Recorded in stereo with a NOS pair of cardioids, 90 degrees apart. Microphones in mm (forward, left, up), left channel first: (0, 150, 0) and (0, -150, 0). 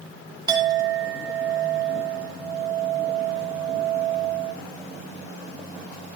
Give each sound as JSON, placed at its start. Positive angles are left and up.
{"t": 0.5, "sound": "a clink", "azimuth_deg": -15, "distance_m": 2.0}